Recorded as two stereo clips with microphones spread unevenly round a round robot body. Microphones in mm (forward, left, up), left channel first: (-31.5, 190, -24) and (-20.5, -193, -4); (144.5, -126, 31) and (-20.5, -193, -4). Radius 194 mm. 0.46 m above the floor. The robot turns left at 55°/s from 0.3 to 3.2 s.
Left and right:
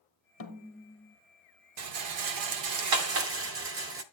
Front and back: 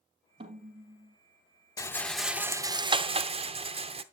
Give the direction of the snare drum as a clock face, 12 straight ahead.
7 o'clock.